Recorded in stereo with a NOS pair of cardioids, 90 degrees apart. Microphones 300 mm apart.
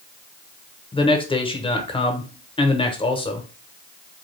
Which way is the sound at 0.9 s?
20° left.